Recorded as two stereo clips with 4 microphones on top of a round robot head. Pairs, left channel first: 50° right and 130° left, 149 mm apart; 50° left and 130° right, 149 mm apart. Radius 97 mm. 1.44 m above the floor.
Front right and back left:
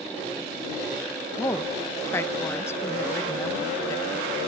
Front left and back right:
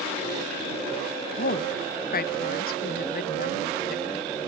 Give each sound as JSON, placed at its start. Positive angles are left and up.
{"t": 1.4, "sound": "a woman speaking", "azimuth_deg": 25}